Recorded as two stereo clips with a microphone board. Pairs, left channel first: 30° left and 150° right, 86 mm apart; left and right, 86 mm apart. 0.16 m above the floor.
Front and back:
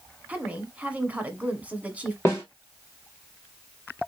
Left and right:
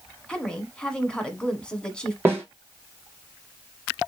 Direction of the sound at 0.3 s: 155° left.